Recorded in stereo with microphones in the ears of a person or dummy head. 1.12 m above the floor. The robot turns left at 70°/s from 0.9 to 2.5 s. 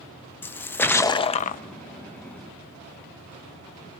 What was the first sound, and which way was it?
A splash, 170° left.